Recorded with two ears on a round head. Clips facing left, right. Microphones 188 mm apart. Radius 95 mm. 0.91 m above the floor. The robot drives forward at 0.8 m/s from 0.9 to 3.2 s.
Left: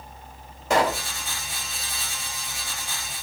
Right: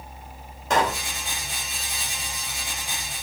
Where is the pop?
10° left (ahead or behind), 1.6 m.